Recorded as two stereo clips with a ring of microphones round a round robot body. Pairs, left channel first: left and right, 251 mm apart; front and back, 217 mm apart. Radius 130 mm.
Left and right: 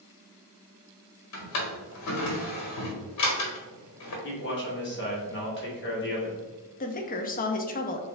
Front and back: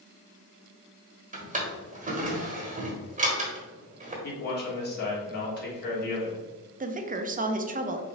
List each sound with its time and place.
1.3 s a drawer: 120° left, 1.3 m
4.2 s a man speaking: 45° left, 2 m
6.8 s a woman speaking: 135° left, 0.7 m